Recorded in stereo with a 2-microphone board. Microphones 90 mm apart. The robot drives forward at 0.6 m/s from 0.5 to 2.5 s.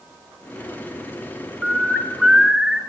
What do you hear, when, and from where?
1.6 s a bird: 5° right (ahead or behind), 1.5 m